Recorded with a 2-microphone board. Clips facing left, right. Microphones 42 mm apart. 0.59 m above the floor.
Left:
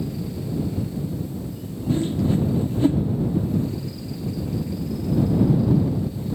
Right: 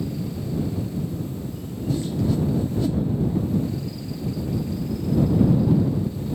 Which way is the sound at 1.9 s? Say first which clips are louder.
Left 2 dB; 35° left (ahead or behind).